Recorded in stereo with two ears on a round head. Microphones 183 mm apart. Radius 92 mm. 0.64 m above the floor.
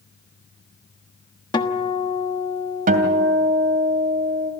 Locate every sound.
1.5 s a guitar: 20° left (ahead or behind), 1.3 m
2.9 s a guitar: 45° right (ahead or behind), 2.5 m